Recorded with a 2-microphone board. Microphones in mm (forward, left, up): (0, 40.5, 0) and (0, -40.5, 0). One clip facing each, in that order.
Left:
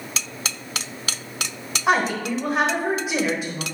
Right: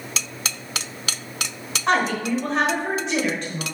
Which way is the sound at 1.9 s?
10° left (ahead or behind).